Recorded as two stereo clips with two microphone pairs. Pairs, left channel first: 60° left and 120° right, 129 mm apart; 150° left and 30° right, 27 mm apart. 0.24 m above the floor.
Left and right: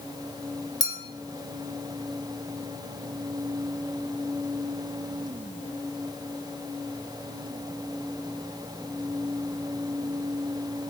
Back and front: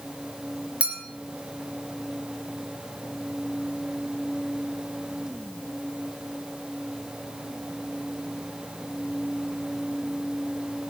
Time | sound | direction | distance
0.8 | a clink | 5° left | 2.5 m